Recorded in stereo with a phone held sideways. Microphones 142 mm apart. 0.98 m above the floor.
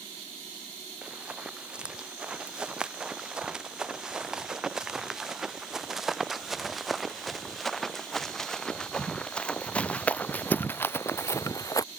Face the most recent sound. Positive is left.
turn(degrees=25)  # may be behind; listen again after turning